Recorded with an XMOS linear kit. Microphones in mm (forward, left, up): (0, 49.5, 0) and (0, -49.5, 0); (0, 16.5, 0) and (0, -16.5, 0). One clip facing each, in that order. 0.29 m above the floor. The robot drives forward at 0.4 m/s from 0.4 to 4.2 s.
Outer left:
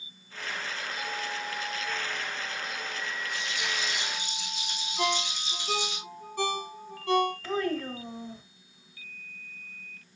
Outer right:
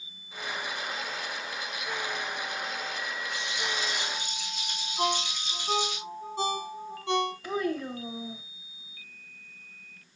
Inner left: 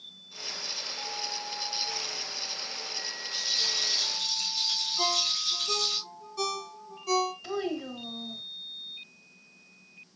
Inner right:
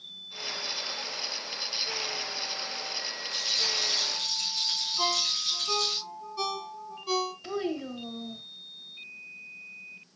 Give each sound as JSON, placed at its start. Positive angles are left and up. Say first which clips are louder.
{"t": 3.3, "sound": "a rattle", "louder": "outer right 1 dB, inner right 1 dB", "side_deg": -60, "distance_m": 4.0}
{"t": 5.0, "sound": "a ringtone", "louder": "outer right 1 dB, even", "side_deg": -20, "distance_m": 1.8}
{"t": 7.4, "sound": "a child speaking", "louder": "even, even", "side_deg": -15, "distance_m": 0.8}